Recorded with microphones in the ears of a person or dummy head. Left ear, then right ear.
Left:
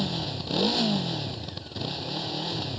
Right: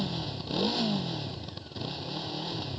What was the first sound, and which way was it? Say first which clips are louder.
A motorcycle: left 4 dB; 10° left (ahead or behind).